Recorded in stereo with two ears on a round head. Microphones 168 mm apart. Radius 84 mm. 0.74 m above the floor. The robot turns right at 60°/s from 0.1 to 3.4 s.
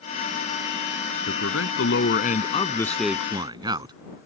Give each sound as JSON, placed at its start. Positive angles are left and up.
{"t": 1.3, "sound": "a man speaking", "azimuth_deg": 75}